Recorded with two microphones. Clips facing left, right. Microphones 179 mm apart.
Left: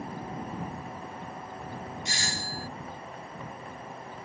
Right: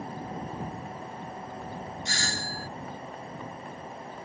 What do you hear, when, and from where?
2.0 s a doorbell: 20° left (ahead or behind)